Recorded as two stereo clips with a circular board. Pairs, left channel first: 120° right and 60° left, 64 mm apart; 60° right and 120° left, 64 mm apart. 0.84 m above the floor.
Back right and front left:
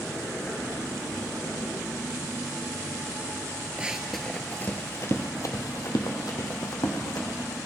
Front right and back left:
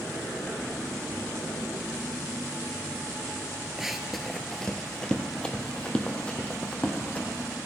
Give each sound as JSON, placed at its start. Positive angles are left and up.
{"t": 3.8, "sound": "running footsteps", "azimuth_deg": 50, "distance_m": 0.8}